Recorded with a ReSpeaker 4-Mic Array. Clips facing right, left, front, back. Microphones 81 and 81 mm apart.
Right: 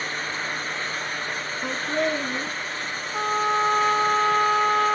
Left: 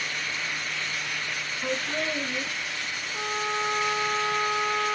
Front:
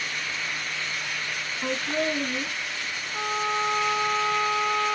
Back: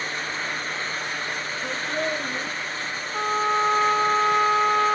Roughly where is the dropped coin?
I don't hear a dropped coin.